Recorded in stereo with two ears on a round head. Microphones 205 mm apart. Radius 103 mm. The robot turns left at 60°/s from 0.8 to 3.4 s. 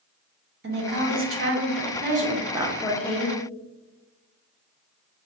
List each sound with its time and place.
0.6 s a woman speaking: 55° right, 0.7 m; by 3.4 s 145° left, 0.7 m